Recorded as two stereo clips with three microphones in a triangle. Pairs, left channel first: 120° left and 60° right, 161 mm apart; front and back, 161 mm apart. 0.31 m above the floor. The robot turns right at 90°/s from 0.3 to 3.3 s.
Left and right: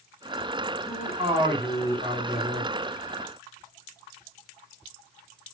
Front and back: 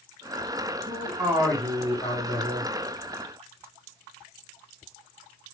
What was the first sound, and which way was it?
A man speaking, 130° right.